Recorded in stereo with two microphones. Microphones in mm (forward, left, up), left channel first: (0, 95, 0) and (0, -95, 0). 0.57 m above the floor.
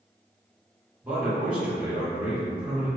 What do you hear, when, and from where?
1.0 s a man speaking: 5° right (ahead or behind), 1.2 m